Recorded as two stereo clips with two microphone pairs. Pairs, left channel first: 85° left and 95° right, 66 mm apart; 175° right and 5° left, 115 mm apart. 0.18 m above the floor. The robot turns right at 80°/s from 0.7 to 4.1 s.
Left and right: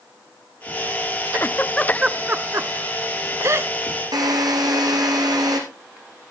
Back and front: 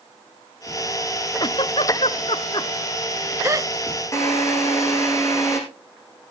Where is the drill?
110° right, 4.5 m.